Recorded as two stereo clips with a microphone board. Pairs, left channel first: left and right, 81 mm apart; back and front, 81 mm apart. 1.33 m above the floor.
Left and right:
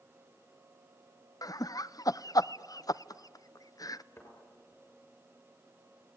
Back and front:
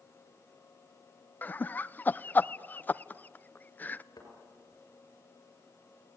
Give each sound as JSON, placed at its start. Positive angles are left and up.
{"t": 1.4, "sound": "laughter", "azimuth_deg": 115, "distance_m": 0.5}
{"t": 4.2, "sound": "a thud", "azimuth_deg": 145, "distance_m": 6.5}